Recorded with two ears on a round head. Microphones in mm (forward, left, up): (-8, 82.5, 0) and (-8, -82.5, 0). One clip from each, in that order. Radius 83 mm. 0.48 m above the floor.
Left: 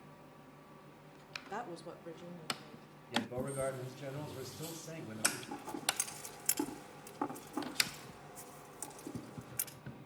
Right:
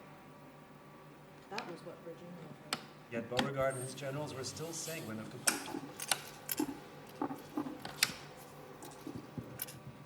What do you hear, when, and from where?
1.5 s a woman speaking: 30° left (ahead or behind), 0.9 m; by 2.9 s 10° left (ahead or behind), 2.0 m
3.1 s a man speaking: 40° right (ahead or behind), 2.5 m
5.5 s scissors: 65° left (ahead or behind), 9 m